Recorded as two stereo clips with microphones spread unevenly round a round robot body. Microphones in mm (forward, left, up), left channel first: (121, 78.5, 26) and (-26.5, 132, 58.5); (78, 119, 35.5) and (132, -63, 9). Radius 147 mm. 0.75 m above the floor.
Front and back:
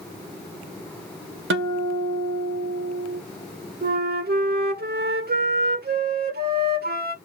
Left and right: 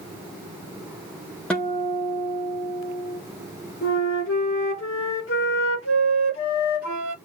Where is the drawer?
No drawer in this recording.